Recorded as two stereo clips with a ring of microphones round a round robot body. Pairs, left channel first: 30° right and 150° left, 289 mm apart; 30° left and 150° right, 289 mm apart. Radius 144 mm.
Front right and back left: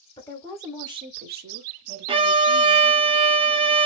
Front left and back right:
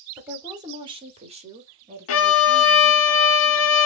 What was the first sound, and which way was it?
A woman speaking, 75° right.